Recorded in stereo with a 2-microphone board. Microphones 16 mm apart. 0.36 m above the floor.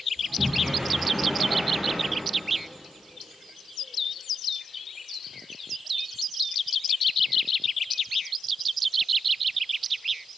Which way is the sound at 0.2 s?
50° right (ahead or behind).